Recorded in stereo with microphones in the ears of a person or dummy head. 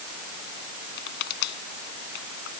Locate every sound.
1.0 s crushing: 60° left (ahead or behind)